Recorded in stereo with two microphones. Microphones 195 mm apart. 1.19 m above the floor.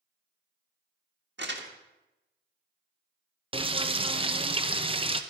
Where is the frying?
30° right (ahead or behind), 0.6 m.